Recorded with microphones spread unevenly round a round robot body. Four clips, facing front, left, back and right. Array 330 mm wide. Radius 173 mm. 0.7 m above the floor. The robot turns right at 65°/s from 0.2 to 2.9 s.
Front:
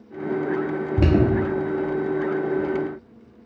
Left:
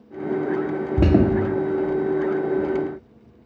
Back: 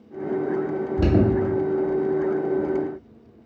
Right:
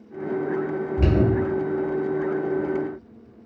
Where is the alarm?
70° left, 1.0 m; by 1.3 s 90° left, 1.0 m.